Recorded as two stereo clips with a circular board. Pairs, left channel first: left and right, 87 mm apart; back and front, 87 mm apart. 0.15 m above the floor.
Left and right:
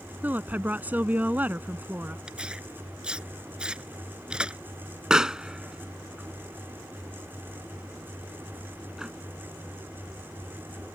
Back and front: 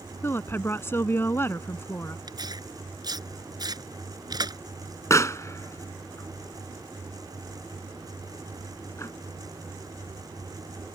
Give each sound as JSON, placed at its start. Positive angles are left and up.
{"t": 0.2, "sound": "a woman speaking", "azimuth_deg": -145}
{"t": 2.3, "sound": "tearing paper", "azimuth_deg": -15}
{"t": 5.1, "sound": "a pop", "azimuth_deg": -165}